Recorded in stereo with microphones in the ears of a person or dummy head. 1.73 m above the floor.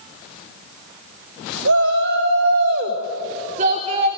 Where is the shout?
65° right (ahead or behind), 1.7 m; by 4.1 s 25° right (ahead or behind), 2.0 m.